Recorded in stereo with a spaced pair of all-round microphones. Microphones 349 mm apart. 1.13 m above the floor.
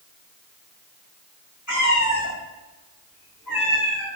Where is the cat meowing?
55° left (ahead or behind), 3.5 m; by 4.1 s 85° left, 5 m.